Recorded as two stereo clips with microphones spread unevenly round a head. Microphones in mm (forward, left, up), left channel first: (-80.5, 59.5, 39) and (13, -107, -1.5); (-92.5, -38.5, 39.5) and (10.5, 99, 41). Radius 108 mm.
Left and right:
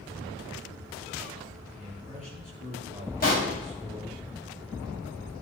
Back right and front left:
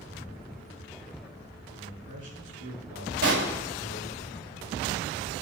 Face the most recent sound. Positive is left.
turn(degrees=65)